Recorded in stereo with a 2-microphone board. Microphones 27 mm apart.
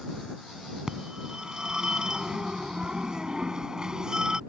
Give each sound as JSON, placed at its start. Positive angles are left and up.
{"t": 0.9, "sound": "a phone ringing", "side_deg": -25}